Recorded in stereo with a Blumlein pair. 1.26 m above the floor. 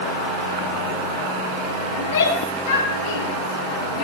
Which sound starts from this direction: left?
A shout, at 2.0 s.